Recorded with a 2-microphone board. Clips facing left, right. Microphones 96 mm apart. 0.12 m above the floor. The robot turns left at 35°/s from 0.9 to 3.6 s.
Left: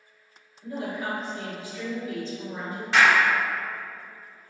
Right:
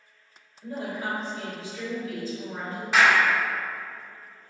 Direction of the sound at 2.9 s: 5° right (ahead or behind).